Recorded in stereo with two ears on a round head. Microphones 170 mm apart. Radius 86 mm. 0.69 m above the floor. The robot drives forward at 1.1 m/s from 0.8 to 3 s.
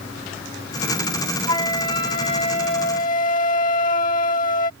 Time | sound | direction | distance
1.5 | a flute | 25° left (ahead or behind) | ?